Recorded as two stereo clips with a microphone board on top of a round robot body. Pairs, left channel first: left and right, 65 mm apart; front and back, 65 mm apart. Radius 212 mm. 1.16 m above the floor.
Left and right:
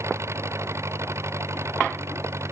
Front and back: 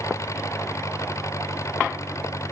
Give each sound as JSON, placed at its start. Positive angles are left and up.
{"t": 0.0, "sound": "an engine running", "azimuth_deg": -40}